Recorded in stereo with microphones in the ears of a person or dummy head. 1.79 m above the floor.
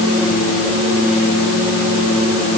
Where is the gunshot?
I don't hear a gunshot.